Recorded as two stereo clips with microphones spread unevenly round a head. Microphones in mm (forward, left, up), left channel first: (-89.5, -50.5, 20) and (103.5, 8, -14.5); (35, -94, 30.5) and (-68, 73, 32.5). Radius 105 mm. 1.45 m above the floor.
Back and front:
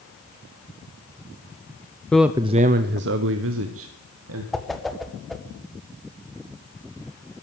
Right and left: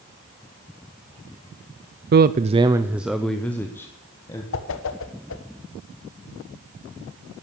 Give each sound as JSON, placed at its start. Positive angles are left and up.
{"t": 2.1, "sound": "a man speaking", "azimuth_deg": 105, "distance_m": 0.5}
{"t": 4.5, "sound": "a whoosh", "azimuth_deg": -70, "distance_m": 1.2}